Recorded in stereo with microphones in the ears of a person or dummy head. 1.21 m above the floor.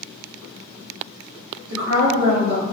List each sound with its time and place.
1.7 s a woman speaking: 85° right, 1.6 m